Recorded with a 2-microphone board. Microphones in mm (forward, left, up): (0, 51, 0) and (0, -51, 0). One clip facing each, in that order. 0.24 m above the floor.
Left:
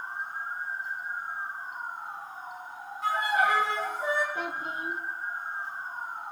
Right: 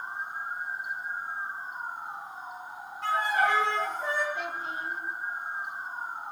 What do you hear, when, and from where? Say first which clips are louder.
3.0 s a violin: even; 5° left (ahead or behind), 10 m
4.3 s a child speaking: left 1 dB; 45° left (ahead or behind), 2 m